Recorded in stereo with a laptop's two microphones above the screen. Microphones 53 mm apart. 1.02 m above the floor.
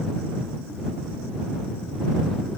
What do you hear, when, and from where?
Only background noise.